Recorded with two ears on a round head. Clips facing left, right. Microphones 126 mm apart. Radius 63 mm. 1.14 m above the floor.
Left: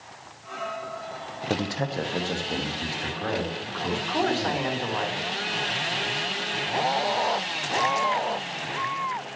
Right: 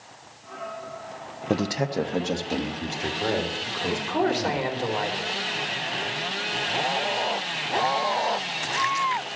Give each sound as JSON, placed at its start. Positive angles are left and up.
{"t": 1.5, "sound": "a man speaking", "side_deg": -15, "distance_m": 0.5}
{"t": 3.9, "sound": "a man speaking", "side_deg": -15, "distance_m": 2.5}